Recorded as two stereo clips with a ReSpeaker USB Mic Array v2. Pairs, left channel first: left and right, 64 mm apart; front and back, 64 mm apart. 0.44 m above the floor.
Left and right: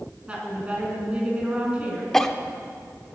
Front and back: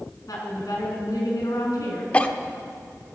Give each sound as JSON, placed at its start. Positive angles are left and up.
{"t": 0.3, "sound": "a woman speaking", "azimuth_deg": -20, "distance_m": 4.5}
{"t": 2.1, "sound": "a cough", "azimuth_deg": 20, "distance_m": 0.8}